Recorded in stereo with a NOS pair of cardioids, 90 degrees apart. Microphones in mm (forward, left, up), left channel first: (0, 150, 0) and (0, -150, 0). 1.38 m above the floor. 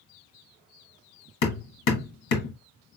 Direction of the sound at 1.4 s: 65° left.